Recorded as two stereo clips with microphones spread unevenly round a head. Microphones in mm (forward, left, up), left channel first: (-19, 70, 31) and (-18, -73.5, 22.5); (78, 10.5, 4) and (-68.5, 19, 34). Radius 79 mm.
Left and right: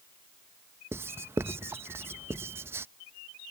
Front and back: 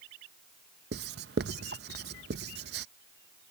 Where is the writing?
165° right.